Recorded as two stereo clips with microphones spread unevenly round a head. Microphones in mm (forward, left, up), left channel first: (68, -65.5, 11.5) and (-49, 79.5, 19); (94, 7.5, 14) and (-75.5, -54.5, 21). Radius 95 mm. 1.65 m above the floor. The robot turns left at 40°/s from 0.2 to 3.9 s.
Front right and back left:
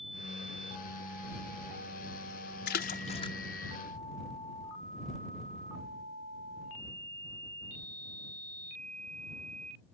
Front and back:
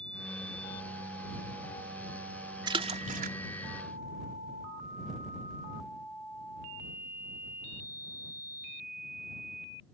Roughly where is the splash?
Right.